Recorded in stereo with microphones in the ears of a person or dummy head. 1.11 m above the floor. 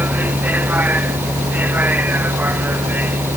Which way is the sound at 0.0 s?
10° right (ahead or behind).